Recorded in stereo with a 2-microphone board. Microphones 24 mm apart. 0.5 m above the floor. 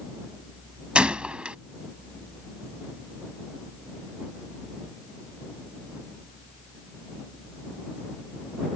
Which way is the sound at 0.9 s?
50° right (ahead or behind).